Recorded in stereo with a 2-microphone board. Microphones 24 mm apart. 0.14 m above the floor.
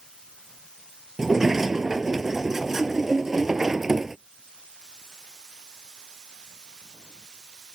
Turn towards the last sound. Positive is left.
turn(degrees=-15)  # may be behind; listen again after turning